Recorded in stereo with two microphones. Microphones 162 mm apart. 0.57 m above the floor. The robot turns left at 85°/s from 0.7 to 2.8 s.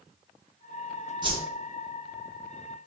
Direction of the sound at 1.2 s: 30° right (ahead or behind).